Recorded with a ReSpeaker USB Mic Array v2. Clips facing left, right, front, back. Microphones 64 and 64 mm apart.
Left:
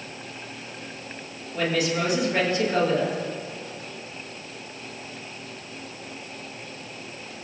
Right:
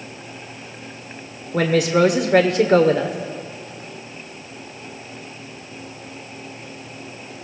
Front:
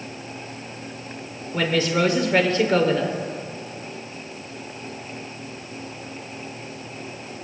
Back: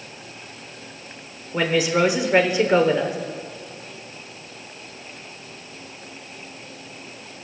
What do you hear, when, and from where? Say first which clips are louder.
1.5 s a woman speaking: right 8 dB, back 2 dB; 105° right, 1.2 m